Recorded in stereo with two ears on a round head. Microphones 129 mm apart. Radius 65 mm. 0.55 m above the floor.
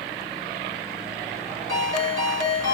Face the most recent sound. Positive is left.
turn(degrees=25)  # may be behind; listen again after turning